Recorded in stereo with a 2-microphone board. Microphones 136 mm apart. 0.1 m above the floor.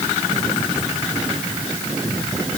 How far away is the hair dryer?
I don't hear a hair dryer.